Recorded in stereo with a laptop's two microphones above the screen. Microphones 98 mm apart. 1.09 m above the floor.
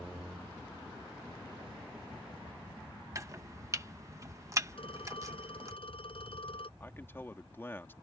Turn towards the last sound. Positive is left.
turn(degrees=20)  # may be behind; listen again after turning